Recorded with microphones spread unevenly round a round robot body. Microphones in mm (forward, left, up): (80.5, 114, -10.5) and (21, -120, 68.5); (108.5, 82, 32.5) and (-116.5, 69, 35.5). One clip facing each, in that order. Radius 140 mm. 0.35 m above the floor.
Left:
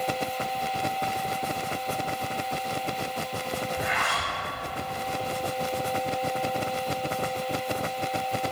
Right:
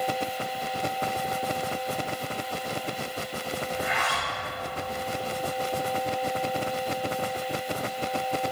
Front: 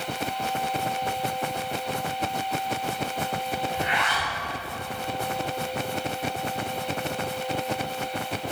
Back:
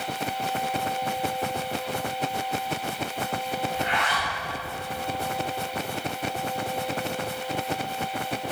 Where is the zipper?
60° right, 1.7 m.